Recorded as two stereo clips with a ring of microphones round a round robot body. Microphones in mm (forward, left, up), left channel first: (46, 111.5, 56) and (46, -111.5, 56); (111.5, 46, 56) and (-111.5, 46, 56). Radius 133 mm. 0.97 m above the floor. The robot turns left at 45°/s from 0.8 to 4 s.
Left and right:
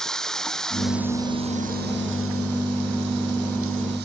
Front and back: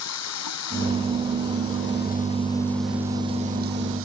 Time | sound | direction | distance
0.0 | running water | straight ahead | ?